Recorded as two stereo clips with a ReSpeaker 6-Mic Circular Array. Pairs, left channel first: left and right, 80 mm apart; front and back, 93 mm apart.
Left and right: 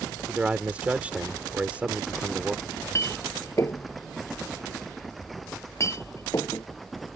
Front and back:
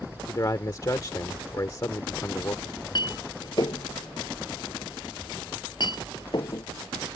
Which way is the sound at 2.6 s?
40° left.